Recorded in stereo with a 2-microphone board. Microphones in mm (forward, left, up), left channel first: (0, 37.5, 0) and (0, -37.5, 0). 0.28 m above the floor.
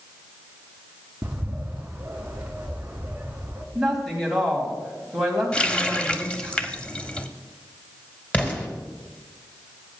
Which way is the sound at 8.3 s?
20° left (ahead or behind).